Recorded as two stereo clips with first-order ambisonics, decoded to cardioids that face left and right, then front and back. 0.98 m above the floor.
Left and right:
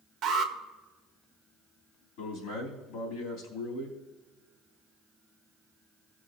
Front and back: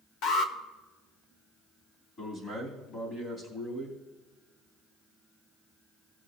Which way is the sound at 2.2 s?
60° left.